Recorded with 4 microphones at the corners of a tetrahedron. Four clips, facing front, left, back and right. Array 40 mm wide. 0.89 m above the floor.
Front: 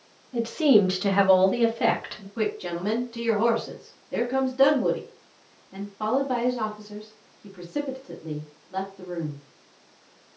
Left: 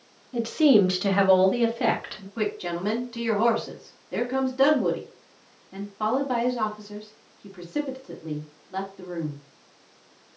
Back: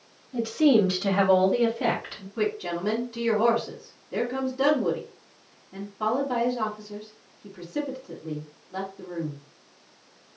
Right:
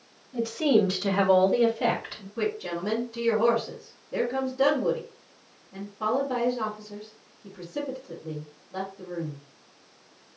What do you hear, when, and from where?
0.3 s a woman speaking: 70° left, 1.2 m; by 2.3 s 45° left, 2.0 m
2.4 s a woman speaking: 65° left, 1.9 m